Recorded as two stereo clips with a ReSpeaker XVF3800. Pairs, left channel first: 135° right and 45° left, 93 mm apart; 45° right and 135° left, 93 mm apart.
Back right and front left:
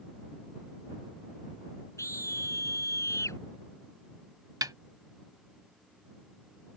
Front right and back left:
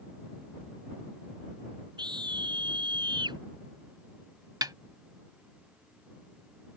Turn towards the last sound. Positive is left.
turn(degrees=90)